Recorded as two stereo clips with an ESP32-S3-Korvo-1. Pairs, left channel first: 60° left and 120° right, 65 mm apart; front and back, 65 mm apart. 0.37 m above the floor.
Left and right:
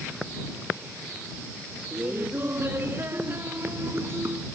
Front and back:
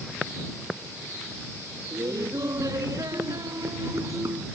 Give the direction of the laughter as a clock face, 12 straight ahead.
6 o'clock.